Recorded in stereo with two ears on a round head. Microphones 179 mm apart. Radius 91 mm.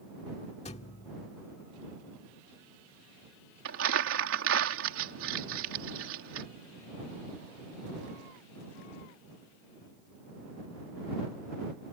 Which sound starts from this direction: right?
Crumpling, at 3.6 s.